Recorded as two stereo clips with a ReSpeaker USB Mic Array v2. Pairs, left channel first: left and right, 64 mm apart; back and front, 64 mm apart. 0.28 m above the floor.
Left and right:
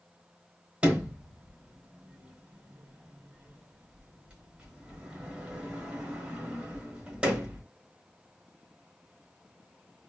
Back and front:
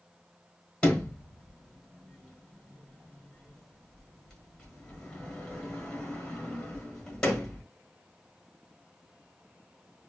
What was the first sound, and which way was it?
A sliding door, 125° right.